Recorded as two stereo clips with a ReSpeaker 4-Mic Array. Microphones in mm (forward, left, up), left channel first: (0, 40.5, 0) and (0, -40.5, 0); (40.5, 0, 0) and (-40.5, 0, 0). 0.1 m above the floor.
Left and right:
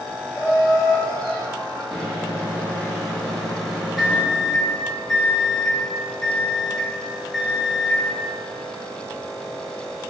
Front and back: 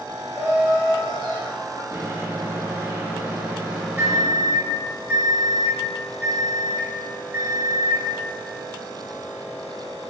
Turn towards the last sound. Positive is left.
turn(degrees=180)